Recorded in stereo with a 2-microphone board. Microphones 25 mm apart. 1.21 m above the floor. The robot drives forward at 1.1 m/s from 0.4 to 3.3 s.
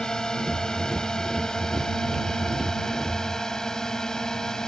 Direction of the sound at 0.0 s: 30° left (ahead or behind).